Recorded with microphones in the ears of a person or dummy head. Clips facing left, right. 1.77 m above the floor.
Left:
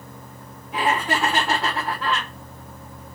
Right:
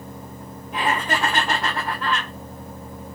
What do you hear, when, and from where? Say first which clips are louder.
0.7 s laughter: left 1 dB; 5° left (ahead or behind), 1.9 m